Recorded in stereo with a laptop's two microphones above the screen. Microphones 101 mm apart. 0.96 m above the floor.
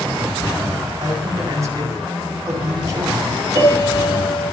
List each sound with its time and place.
1.0 s a man speaking: 35° right (ahead or behind), 8.5 m
3.5 s a piano: 40° right (ahead or behind), 9 m